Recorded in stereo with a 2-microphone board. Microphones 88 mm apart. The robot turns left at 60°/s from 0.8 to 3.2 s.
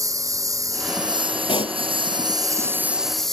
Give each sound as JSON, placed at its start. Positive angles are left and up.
{"t": 0.0, "sound": "a lawn mower", "azimuth_deg": -40}
{"t": 1.5, "sound": "a pop", "side_deg": 80}